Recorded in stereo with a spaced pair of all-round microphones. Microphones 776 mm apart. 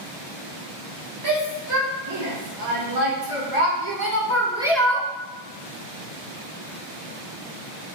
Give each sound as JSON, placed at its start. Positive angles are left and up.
{"t": 1.2, "sound": "a shout", "side_deg": -65, "distance_m": 2.0}